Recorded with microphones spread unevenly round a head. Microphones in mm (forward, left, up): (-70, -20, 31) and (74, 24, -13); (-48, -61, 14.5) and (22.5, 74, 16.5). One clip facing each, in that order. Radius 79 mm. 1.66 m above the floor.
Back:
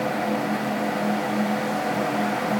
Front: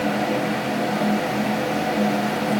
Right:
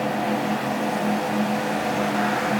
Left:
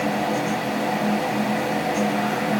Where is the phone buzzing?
No phone buzzing in this recording.